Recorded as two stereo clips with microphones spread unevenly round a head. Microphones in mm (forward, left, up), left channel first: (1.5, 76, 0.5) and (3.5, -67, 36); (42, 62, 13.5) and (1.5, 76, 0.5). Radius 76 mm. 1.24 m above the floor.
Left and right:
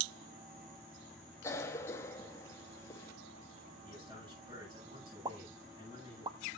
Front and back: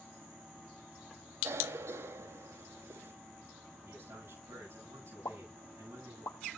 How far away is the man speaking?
About 10 m.